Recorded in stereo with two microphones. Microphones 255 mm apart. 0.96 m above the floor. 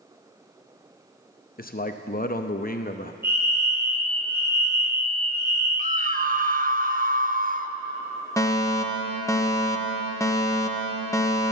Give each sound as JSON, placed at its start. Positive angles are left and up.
{"t": 1.6, "sound": "a man speaking", "side_deg": 35, "distance_m": 0.7}
{"t": 3.2, "sound": "a fire alarm", "side_deg": -10, "distance_m": 6.0}
{"t": 5.8, "sound": "a scream", "side_deg": -35, "distance_m": 0.8}
{"t": 8.4, "sound": "a fire alarm", "side_deg": 10, "distance_m": 1.2}